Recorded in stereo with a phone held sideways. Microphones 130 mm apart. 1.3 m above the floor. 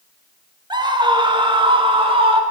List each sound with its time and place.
0.7 s a scream: 35° right (ahead or behind), 1.7 m; by 2.4 s 45° right (ahead or behind), 2.5 m